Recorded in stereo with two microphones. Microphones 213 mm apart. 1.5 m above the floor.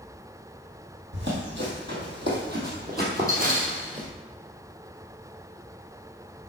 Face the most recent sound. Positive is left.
turn(degrees=-35)  # may be behind; listen again after turning